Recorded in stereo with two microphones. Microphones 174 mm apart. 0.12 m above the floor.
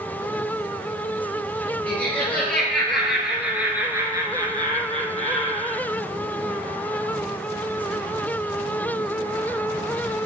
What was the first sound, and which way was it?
Laughter, 10° left (ahead or behind).